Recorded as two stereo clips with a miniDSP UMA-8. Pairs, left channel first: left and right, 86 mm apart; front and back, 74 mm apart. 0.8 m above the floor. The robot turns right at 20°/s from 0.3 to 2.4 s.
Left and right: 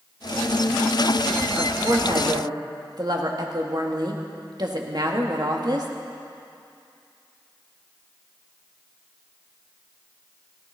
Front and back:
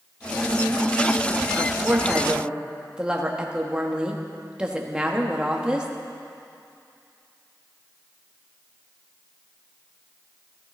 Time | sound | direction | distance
1.5 | a woman speaking | 125° right | 1.4 m